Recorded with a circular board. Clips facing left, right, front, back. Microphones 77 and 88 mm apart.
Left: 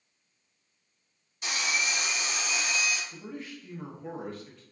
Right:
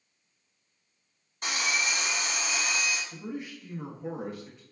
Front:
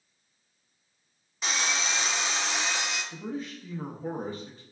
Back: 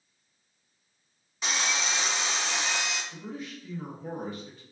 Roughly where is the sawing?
Right.